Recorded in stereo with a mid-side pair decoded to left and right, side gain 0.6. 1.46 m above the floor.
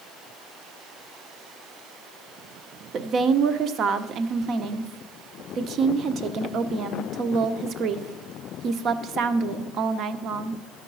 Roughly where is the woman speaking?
Ahead right.